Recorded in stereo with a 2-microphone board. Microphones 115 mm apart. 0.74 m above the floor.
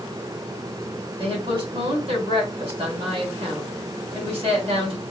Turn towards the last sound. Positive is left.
turn(degrees=-50)  # may be behind; listen again after turning